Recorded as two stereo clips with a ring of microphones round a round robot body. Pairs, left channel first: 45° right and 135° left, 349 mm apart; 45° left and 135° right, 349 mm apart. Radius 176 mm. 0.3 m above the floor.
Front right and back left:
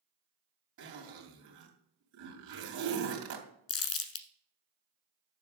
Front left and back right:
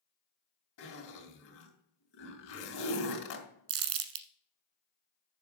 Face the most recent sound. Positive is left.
turn(degrees=-100)